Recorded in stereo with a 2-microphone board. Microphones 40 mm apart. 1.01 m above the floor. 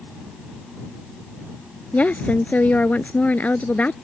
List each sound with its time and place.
1.9 s a woman speaking: 40° left (ahead or behind)